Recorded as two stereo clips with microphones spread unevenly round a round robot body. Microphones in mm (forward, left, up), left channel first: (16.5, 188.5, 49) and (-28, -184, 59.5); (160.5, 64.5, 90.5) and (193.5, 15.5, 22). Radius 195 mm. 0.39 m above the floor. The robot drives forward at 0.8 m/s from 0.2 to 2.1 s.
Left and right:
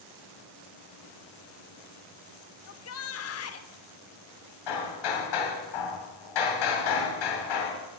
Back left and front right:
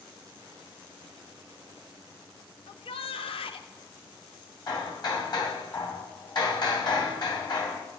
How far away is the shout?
About 1.0 m.